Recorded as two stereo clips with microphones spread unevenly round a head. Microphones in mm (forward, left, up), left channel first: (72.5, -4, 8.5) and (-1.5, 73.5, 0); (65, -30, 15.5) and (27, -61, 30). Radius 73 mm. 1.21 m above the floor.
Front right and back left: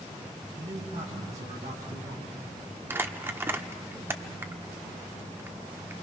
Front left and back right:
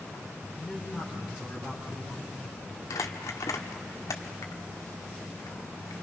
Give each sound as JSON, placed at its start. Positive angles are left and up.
{"t": 0.6, "sound": "a man speaking", "azimuth_deg": 140, "distance_m": 5.0}
{"t": 2.9, "sound": "crumpling", "azimuth_deg": 65, "distance_m": 1.1}